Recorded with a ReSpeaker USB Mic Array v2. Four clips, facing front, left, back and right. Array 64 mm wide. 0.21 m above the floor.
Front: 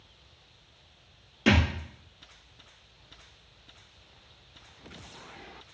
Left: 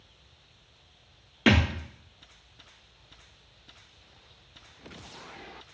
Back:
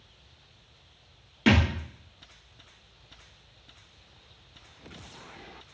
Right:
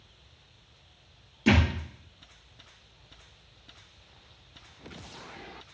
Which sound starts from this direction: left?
A thud, at 1.5 s.